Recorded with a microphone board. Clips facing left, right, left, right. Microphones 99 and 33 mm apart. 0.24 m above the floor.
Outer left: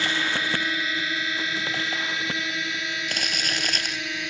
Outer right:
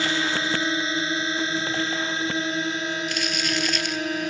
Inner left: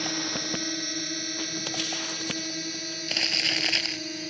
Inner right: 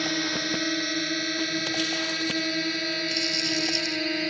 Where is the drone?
25° right (ahead or behind); by 4.3 s 40° right (ahead or behind).